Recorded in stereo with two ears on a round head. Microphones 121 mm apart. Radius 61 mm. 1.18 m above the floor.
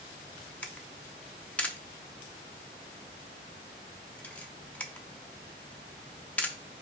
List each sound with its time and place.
0.6 s a camera shutter: 10° left (ahead or behind), 0.6 m